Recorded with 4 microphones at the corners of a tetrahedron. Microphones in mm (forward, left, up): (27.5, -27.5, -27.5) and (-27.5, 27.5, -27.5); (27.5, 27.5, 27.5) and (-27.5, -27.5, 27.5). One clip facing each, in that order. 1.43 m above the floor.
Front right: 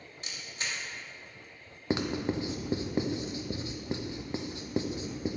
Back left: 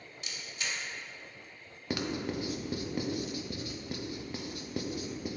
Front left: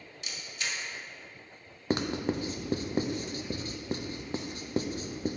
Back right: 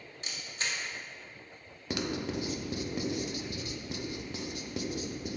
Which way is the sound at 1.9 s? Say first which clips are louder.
Front right 4 dB, front left 4 dB; 5° left.